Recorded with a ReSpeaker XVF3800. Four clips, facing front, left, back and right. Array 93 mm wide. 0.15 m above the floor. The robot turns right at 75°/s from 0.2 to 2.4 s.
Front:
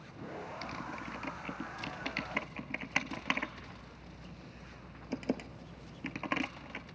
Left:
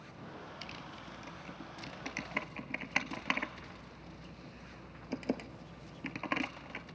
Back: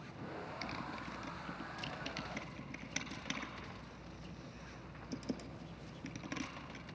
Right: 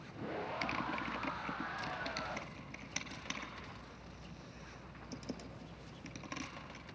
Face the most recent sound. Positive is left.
turn(degrees=40)